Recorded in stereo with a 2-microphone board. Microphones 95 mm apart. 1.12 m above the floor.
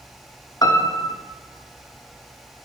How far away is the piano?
About 0.6 m.